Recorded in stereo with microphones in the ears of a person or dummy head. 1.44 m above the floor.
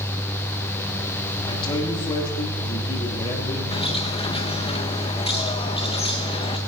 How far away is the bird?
About 1.0 m.